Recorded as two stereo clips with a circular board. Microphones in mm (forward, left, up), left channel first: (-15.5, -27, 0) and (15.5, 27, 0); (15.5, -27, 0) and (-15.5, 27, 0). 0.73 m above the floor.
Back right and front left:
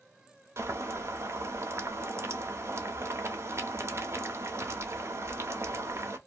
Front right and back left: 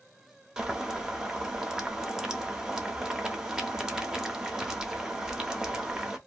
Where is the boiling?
40° left, 0.7 m.